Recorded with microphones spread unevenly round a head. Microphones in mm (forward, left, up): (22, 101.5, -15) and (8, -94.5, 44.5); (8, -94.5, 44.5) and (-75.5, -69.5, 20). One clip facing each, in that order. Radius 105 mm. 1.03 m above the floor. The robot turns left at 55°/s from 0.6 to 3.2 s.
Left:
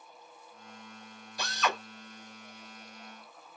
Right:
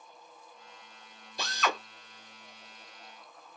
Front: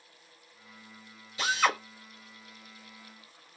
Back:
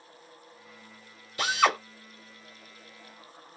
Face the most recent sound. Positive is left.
turn(degrees=100)